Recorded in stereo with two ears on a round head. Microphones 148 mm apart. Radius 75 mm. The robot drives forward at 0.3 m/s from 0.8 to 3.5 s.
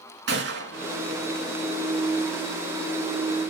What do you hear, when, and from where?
0.3 s a gunshot: 75° right (ahead or behind), 4 m; by 1.8 s 70° right (ahead or behind), 4 m